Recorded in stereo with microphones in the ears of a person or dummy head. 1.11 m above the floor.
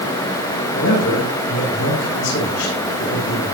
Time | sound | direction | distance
0.7 | a man speaking | 75° left (ahead or behind) | 9 m